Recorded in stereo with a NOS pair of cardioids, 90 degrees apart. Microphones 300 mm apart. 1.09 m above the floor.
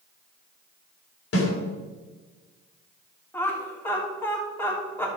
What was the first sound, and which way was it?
A snare drum, 50° left.